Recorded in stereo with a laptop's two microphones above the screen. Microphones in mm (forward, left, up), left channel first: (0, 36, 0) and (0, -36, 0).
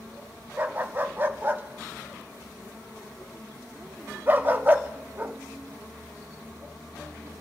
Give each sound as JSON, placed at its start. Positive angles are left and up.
{"t": 0.6, "sound": "a dog barking", "side_deg": -30, "distance_m": 0.5}